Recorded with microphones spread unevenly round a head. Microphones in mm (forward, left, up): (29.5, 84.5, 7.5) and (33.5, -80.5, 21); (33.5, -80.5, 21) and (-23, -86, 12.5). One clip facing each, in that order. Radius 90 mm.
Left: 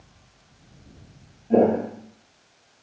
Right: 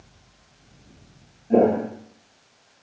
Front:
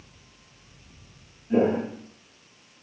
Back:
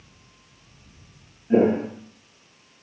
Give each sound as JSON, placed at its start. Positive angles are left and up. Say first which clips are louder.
{"t": 1.5, "sound": "footsteps", "louder": "right 1 dB, back 3 dB", "azimuth_deg": -155, "distance_m": 0.9}